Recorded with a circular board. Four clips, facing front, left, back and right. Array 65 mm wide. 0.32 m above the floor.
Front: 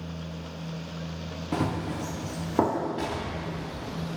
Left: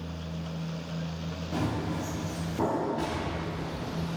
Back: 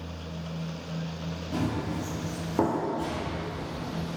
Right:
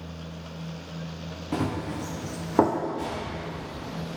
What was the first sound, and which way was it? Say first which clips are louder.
Running footsteps: right 2 dB, front 2 dB; 40° right.